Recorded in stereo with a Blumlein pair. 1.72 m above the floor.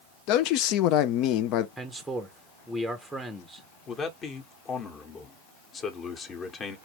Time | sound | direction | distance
0.3 | a man speaking | 40° left | 0.7 m
1.8 | a man speaking | straight ahead | 0.9 m
3.9 | a man speaking | 25° left | 1.3 m